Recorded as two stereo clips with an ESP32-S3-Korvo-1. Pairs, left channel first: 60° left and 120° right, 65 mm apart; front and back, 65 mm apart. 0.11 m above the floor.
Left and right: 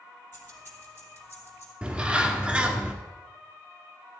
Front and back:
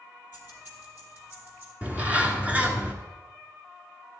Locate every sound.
0.3 s keys jangling: 115° left, 2.5 m; by 1.7 s 120° left, 3 m
1.8 s a bird: 165° right, 1.3 m